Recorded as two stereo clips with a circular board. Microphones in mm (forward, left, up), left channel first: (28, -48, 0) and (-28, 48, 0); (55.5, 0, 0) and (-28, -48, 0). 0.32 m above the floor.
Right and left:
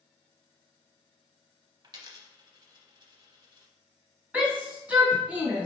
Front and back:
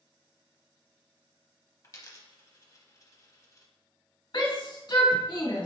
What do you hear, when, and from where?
1.8 s a dropped coin: 80° left, 0.7 m
4.3 s a shout: 45° left, 1.8 m